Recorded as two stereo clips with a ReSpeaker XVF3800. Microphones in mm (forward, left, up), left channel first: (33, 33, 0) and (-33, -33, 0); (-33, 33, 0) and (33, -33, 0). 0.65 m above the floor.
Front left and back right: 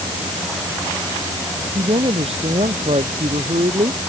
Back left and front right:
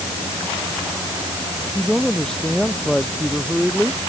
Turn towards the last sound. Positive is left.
turn(degrees=-140)